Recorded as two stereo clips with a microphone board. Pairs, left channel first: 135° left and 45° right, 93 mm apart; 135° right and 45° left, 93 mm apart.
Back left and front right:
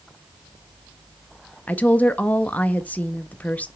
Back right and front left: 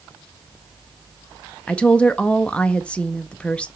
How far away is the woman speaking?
About 0.5 m.